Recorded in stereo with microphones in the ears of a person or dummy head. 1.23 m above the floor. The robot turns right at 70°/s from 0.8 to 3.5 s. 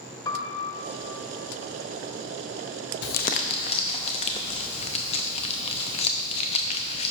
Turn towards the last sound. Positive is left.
turn(degrees=145)